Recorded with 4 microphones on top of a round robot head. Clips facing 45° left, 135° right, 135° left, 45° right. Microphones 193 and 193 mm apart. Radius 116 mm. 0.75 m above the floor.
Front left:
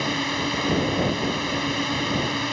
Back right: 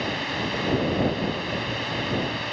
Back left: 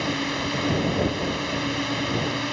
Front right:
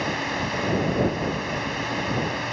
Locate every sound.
0.0 s a drone: 80° left